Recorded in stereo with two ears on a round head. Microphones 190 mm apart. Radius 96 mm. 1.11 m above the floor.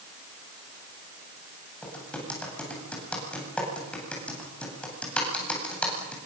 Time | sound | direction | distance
1.8 | typing on a keyboard | 5° left (ahead or behind) | 9 m